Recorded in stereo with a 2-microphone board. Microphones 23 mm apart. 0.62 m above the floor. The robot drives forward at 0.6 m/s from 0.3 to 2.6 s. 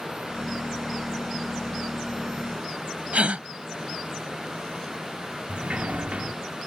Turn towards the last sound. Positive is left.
turn(degrees=-65)  # may be behind; listen again after turning